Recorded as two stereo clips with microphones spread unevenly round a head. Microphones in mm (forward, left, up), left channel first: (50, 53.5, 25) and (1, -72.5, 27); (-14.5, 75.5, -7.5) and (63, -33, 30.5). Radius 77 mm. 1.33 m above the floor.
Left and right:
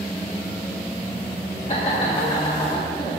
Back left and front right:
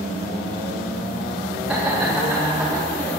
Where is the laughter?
25° left, 1.9 m; by 3.1 s 15° left, 3 m.